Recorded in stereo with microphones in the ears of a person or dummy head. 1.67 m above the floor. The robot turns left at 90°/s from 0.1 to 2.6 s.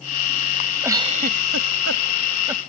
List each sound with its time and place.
0.8 s a giggle: 10° right (ahead or behind)